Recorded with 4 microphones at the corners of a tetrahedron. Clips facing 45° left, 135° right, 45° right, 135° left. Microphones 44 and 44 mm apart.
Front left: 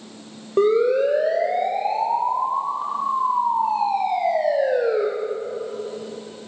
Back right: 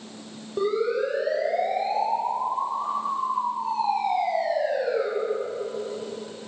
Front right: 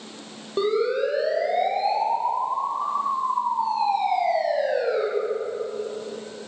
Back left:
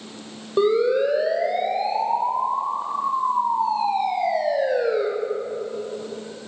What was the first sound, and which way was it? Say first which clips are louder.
A siren: front left 7 dB, back left 4 dB; 50° left.